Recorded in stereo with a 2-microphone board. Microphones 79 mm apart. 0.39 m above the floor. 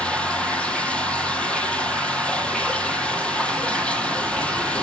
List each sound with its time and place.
0.0 s running water: 15° left (ahead or behind), 1.9 m